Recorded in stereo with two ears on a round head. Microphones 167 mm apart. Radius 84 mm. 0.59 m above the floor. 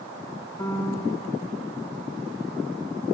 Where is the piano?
15° left (ahead or behind), 0.6 m.